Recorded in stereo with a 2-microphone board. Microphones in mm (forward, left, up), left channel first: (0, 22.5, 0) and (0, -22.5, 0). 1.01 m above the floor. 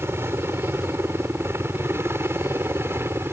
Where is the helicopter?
65° right (ahead or behind).